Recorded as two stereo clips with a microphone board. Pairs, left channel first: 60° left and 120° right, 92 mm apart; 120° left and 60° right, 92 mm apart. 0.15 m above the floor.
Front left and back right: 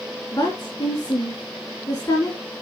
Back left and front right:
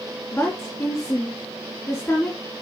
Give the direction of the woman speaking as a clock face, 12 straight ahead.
9 o'clock.